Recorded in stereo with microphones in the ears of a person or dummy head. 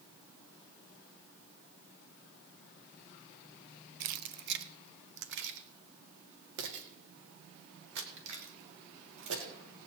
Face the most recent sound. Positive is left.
turn(degrees=-70)  # may be behind; listen again after turning